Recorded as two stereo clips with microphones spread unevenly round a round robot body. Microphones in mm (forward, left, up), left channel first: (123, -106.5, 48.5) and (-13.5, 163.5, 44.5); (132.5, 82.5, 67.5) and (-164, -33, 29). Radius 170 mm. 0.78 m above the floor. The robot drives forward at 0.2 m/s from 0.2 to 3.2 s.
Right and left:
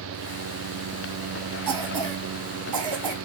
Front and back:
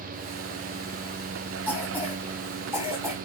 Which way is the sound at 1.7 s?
120° left.